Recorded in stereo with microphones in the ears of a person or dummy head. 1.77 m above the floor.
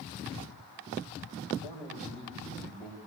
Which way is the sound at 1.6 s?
50° right (ahead or behind).